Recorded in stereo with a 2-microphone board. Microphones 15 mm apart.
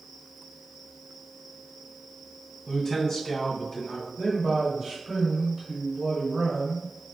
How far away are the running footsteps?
No running footsteps in this recording.